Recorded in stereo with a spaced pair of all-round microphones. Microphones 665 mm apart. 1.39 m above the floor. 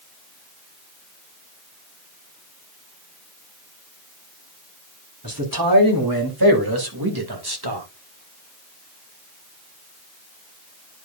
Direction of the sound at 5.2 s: 30° right (ahead or behind).